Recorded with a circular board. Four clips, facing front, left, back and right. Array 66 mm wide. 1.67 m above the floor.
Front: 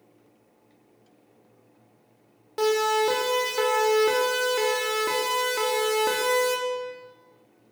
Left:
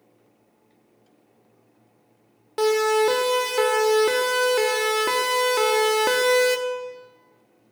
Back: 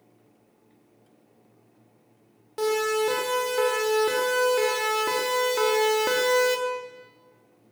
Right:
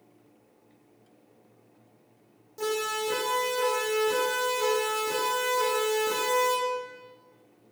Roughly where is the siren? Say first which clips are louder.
Left 11 dB, front 2 dB; left.